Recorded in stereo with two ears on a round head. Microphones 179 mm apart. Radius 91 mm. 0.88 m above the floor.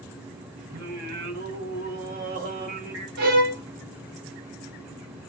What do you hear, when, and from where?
0.7 s singing: 45° right (ahead or behind), 1.3 m
3.2 s a violin: 45° right (ahead or behind), 1.3 m